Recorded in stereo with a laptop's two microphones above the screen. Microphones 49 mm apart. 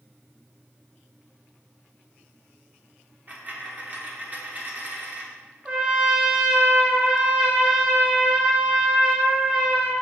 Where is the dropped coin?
35° right (ahead or behind), 0.6 m.